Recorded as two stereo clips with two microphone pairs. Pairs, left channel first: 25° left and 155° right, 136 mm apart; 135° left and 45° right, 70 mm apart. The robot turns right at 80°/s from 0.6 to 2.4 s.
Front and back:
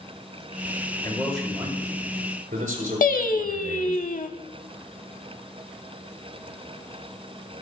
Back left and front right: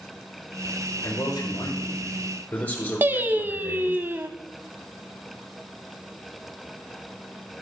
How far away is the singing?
About 0.7 m.